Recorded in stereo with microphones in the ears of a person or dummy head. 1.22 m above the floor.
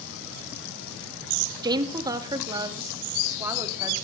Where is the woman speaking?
30° right (ahead or behind), 1.9 m; by 3.9 s 20° right (ahead or behind), 3 m.